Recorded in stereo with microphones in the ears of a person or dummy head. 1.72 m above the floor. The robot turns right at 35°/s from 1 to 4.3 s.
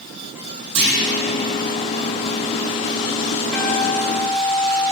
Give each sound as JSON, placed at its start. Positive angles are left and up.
{"t": 0.8, "sound": "a clunk", "side_deg": -65, "distance_m": 2.0}
{"t": 3.5, "sound": "a guitar", "side_deg": -5, "distance_m": 1.5}